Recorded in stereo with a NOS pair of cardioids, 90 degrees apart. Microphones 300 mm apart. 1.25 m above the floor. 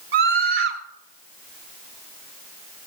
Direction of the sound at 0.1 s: 45° right.